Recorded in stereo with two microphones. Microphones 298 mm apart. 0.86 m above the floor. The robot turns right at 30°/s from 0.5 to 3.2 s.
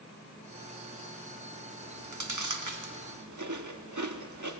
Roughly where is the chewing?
Right.